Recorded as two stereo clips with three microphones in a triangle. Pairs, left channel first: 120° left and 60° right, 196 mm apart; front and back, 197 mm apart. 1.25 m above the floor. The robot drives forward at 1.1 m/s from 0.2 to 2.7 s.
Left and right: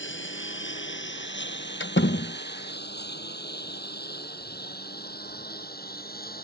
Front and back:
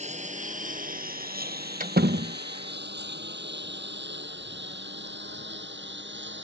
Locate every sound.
0.0 s a lawn mower: 125° left; by 6.4 s 160° left
1.8 s a door slam: 130° left; by 2.4 s 155° left